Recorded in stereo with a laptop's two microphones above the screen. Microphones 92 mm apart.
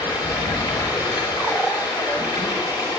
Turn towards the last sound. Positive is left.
turn(degrees=50)  # may be behind; listen again after turning